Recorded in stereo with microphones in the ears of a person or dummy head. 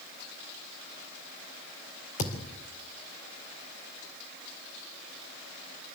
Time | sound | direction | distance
2.2 | a thud | 40° left (ahead or behind) | 2.5 m